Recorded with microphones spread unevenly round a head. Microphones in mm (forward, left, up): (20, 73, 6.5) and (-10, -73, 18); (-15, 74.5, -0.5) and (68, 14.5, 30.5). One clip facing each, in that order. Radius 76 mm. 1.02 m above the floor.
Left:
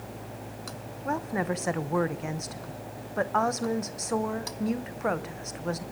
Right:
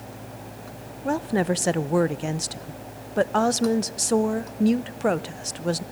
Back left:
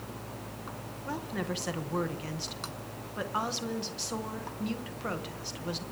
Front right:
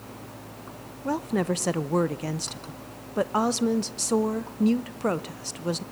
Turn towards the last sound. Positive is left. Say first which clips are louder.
# right 6 dB, front right 9 dB
turn(degrees=-75)